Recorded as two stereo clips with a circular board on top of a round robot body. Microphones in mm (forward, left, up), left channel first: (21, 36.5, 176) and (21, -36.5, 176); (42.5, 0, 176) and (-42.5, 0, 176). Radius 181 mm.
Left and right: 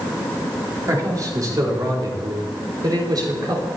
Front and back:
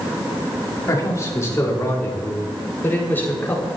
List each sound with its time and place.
0.9 s a man speaking: 55° right, 5 m; by 3.7 s 70° right, 6 m